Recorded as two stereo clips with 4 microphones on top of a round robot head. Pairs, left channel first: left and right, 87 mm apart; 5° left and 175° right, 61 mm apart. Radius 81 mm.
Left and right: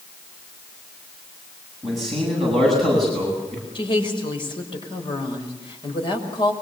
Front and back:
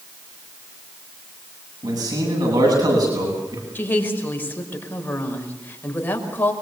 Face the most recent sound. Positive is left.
turn(degrees=60)